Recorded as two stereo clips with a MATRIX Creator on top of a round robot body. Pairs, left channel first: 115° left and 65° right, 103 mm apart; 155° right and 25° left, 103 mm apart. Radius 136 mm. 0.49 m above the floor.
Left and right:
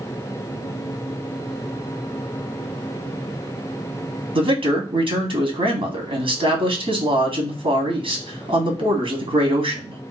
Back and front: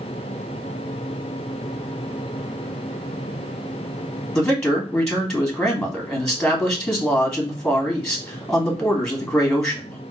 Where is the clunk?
I don't hear a clunk.